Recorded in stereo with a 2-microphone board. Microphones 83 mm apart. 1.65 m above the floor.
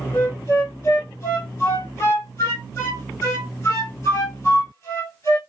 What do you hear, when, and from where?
0.1 s a flute: 35° left (ahead or behind), 2 m